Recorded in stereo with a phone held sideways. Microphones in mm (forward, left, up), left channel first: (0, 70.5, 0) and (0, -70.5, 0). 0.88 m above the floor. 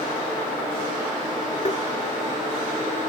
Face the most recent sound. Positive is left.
turn(degrees=50)  # may be behind; listen again after turning